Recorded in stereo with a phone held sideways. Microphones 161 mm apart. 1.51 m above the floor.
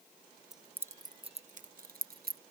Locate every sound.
0.5 s keys jangling: centre (ahead or behind); by 2.4 s 70° right (ahead or behind)